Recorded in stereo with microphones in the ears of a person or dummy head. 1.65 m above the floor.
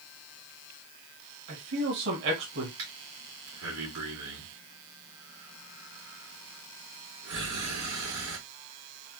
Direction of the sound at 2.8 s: 65° right (ahead or behind).